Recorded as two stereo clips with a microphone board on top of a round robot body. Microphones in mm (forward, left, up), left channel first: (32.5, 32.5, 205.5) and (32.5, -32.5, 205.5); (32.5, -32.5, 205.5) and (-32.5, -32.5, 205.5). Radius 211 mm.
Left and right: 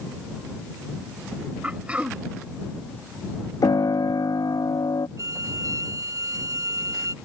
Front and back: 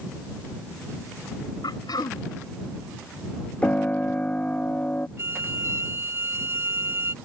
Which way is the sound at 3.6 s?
65° left.